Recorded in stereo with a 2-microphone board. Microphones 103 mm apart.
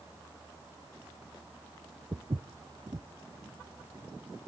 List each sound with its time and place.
2.1 s footsteps: 45° right (ahead or behind), 0.5 m